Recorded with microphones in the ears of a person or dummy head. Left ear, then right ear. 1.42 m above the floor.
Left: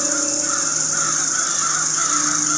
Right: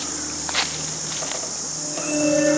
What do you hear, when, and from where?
0.0 s an insect: 45° left (ahead or behind), 1.1 m